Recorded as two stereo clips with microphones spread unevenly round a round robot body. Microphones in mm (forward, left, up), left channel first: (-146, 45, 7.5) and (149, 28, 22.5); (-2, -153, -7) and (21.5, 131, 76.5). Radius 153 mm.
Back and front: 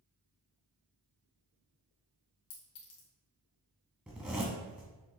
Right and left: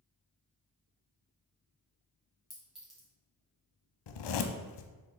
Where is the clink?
Straight behind, 2 m.